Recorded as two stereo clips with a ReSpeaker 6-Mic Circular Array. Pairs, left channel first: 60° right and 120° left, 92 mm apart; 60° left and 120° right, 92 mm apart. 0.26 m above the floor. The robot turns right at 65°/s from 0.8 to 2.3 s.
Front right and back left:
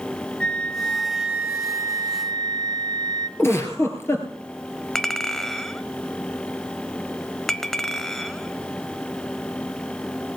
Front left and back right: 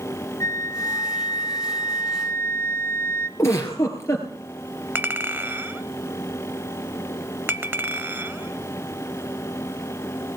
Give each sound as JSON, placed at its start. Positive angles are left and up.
{"t": 0.4, "sound": "a flute", "azimuth_deg": 15, "distance_m": 0.6}
{"t": 3.4, "sound": "a giggle", "azimuth_deg": 0, "distance_m": 3.0}
{"t": 5.0, "sound": "a clink", "azimuth_deg": -140, "distance_m": 0.8}